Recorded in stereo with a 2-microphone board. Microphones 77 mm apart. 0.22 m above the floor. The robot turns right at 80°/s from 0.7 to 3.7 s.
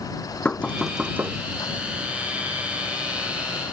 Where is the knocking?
165° left; by 1.4 s 140° right.